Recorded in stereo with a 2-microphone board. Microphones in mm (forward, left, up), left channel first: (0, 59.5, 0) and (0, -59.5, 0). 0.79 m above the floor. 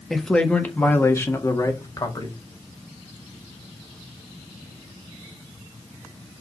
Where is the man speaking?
5° left (ahead or behind), 1.4 m; by 2.4 s 35° left (ahead or behind), 2 m.